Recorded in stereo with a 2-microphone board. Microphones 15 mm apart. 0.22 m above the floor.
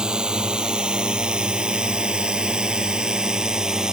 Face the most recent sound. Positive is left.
turn(degrees=-45)  # may be behind; listen again after turning